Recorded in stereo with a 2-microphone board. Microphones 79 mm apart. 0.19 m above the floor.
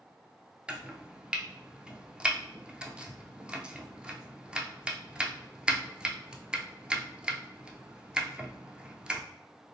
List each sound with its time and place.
0.7 s chopping: 15° right (ahead or behind), 0.6 m